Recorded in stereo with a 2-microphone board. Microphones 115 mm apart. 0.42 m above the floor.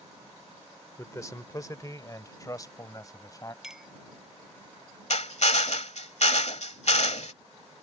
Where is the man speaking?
25° left (ahead or behind); by 3.5 s 30° left (ahead or behind).